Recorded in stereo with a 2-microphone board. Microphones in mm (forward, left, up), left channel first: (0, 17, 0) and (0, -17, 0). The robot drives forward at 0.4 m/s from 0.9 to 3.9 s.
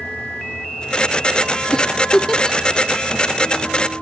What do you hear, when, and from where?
1.7 s a giggle: 25° left (ahead or behind), 0.5 m; by 2.6 s 20° left (ahead or behind), 0.7 m